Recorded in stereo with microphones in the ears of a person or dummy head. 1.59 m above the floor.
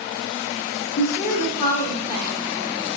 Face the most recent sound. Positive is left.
turn(degrees=40)  # may be behind; listen again after turning